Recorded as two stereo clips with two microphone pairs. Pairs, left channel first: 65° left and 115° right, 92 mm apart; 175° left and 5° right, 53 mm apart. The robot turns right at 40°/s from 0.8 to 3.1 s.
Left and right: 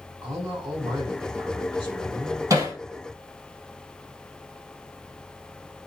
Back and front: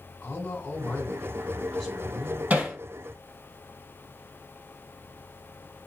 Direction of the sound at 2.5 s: 65° right.